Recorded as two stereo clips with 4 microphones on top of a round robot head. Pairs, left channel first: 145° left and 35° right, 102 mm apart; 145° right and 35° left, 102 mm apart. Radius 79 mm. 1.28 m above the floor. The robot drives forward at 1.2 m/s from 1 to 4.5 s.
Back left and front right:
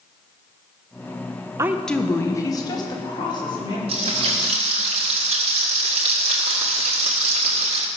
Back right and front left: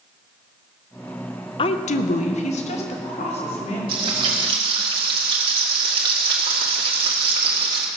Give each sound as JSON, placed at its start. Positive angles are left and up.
{"t": 1.6, "sound": "a woman speaking", "azimuth_deg": -100, "distance_m": 0.5}
{"t": 3.9, "sound": "frying", "azimuth_deg": -5, "distance_m": 2.5}